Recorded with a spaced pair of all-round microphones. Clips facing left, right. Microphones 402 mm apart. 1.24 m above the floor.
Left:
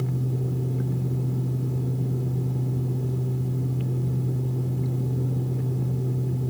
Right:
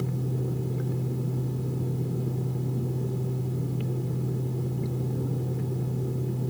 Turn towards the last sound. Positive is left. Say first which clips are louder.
# left 1 dB
turn(degrees=60)  # may be behind; listen again after turning